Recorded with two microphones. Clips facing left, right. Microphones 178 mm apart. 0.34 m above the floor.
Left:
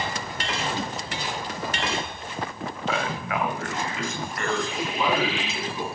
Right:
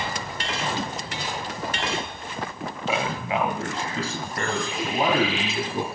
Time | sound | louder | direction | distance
2.9 | a man speaking | right 2 dB | 15° right (ahead or behind) | 1.8 m